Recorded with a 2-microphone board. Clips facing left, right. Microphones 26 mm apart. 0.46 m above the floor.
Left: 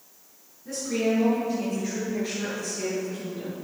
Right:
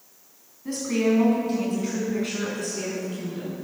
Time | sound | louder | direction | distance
0.7 | a woman speaking | right 3 dB | 60° right (ahead or behind) | 4 m